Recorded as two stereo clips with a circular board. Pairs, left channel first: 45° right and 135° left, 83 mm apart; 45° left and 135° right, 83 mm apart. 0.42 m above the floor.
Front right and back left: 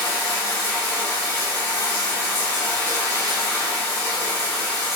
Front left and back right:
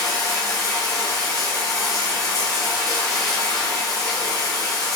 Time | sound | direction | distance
0.0 | running water | 40° right | 1.1 m